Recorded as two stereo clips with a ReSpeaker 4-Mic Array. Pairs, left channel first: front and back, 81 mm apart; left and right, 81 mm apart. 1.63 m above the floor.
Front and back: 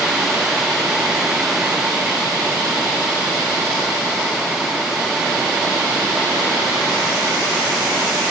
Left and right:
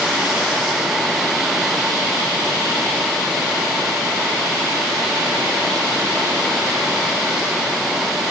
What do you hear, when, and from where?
Only background noise.